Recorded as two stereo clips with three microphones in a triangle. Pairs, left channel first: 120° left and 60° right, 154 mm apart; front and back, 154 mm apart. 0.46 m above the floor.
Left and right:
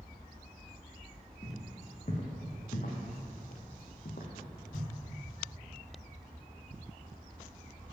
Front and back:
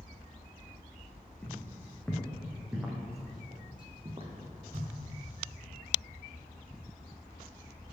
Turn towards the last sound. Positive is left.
turn(degrees=145)